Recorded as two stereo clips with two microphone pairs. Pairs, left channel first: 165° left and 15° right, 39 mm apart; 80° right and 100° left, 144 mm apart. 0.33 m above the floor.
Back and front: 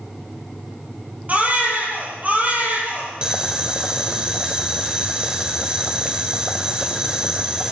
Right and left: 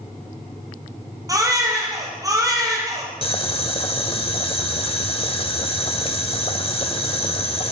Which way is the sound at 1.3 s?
35° left.